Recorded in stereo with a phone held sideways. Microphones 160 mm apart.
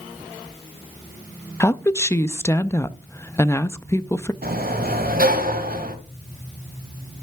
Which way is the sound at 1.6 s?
15° left (ahead or behind).